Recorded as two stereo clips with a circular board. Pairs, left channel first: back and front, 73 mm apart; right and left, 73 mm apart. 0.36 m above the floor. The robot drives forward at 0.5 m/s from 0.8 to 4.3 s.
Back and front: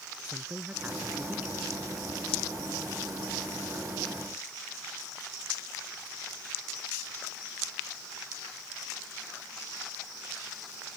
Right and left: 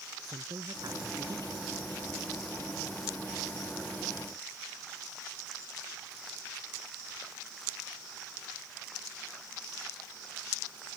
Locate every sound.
0.2 s a woman speaking: 65° left; by 1.7 s 70° left